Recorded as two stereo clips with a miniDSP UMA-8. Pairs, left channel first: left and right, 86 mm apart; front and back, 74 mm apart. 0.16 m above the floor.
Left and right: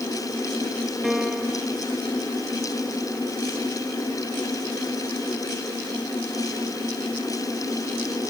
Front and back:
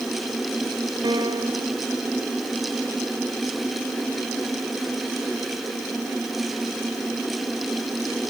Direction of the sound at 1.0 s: Straight behind.